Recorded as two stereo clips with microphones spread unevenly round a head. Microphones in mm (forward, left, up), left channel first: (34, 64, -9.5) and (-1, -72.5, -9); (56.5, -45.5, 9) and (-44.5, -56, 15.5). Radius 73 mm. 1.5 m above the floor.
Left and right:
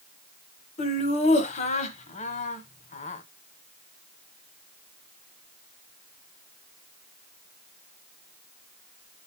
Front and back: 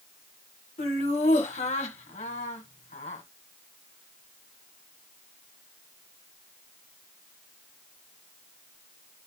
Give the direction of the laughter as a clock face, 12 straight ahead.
11 o'clock.